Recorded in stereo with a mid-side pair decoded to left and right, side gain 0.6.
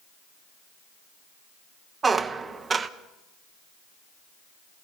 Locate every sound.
2.0 s a squeak: 25° right, 1.0 m